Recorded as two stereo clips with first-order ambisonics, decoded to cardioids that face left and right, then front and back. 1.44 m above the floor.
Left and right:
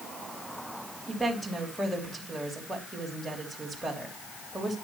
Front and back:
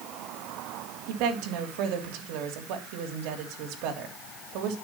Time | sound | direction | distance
1.1 | a woman speaking | straight behind | 3 m